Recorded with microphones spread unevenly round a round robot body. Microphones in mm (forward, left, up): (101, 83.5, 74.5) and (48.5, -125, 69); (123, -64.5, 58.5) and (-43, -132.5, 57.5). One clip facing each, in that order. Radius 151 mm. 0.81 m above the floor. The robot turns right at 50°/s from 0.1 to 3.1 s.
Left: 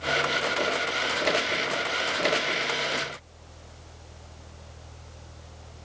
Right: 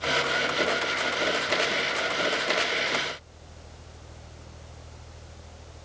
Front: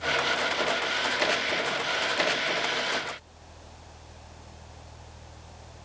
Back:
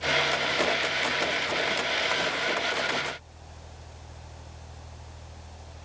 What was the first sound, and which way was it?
Only background noise.